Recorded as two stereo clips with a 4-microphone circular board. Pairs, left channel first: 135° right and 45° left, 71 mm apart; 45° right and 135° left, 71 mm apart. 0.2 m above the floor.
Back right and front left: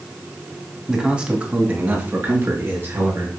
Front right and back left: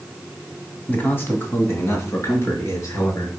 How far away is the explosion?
No explosion in this recording.